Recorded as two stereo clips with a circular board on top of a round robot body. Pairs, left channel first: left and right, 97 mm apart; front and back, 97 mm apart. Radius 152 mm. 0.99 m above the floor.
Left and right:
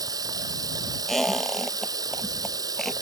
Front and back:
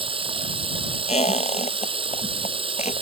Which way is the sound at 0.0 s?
145° right.